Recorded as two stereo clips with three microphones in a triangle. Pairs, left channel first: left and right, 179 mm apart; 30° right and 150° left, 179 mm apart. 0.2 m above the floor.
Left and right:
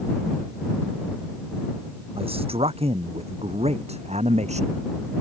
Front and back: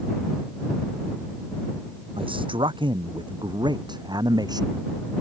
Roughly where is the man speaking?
Behind right.